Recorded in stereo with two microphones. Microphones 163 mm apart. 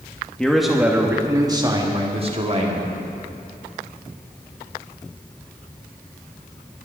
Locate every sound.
0.4 s a man speaking: 5° left (ahead or behind), 1.3 m; by 3.0 s 45° right (ahead or behind), 2 m